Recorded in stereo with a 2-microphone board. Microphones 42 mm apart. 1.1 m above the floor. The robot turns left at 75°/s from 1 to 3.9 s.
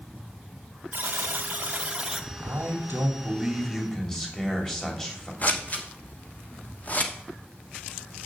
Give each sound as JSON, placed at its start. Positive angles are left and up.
{"t": 0.9, "sound": "a buzzer", "azimuth_deg": -75, "distance_m": 0.8}
{"t": 2.4, "sound": "a man speaking", "azimuth_deg": -85, "distance_m": 2.5}
{"t": 5.4, "sound": "scissors", "side_deg": 40, "distance_m": 1.2}